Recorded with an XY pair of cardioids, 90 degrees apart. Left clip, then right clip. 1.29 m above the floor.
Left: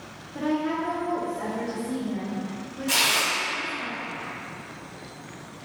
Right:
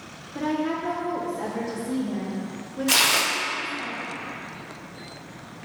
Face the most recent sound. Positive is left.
turn(degrees=-50)